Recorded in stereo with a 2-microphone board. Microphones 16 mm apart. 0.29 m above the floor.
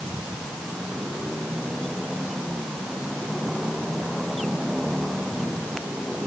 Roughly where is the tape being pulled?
I don't hear tape being pulled.